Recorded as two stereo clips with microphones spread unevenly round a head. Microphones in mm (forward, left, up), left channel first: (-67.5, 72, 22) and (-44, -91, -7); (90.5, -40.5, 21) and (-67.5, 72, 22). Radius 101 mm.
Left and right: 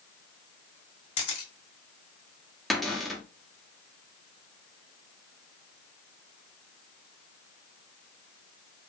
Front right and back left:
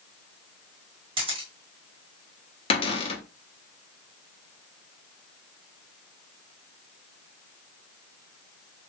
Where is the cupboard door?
10° right, 0.9 m.